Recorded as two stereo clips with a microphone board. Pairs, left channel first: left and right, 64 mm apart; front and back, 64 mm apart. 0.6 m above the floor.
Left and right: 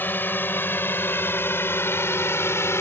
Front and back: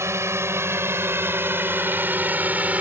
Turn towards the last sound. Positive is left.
turn(degrees=120)